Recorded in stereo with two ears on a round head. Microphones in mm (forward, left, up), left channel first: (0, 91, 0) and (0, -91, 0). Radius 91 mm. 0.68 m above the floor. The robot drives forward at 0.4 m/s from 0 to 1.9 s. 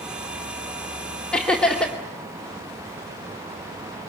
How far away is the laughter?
About 2.5 m.